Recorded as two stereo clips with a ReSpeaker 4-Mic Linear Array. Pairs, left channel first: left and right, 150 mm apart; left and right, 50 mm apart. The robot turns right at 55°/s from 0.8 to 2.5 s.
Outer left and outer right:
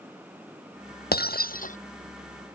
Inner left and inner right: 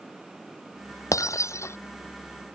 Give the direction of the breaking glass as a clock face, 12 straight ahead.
9 o'clock.